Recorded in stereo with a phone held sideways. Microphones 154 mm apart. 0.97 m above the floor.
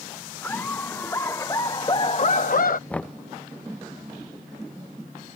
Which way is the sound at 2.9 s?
10° left (ahead or behind).